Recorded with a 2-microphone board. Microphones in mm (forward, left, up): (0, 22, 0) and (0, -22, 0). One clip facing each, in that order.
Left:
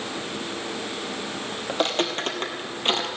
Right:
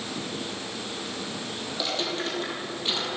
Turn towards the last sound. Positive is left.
turn(degrees=45)  # may be behind; listen again after turning